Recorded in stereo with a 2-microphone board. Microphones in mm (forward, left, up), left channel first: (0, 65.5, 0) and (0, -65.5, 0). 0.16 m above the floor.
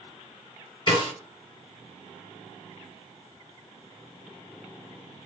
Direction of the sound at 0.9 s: 35° left (ahead or behind).